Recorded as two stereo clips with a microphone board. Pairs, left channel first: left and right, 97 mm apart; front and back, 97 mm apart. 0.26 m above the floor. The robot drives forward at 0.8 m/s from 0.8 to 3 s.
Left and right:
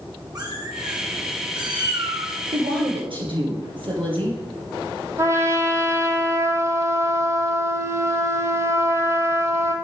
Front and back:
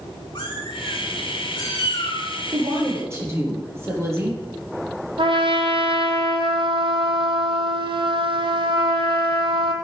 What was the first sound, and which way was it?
A cat meowing, 40° right.